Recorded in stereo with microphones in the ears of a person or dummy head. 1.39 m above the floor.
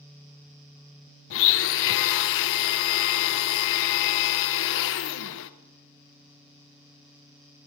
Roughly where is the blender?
Left.